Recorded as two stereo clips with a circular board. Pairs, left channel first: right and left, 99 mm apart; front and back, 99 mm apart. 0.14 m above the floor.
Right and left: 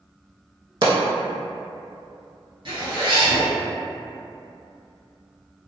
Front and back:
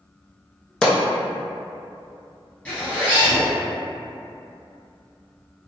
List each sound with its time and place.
0.8 s a pop: 80° left, 0.6 m
2.6 s a zipper: 70° left, 1.6 m